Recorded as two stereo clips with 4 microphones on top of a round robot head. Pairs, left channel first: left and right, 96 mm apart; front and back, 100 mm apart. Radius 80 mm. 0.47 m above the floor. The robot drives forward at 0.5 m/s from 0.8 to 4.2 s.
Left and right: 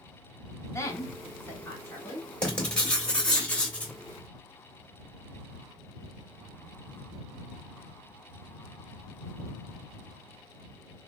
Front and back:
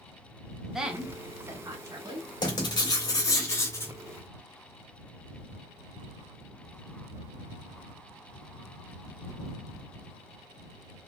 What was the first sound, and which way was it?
A woman speaking, 100° left.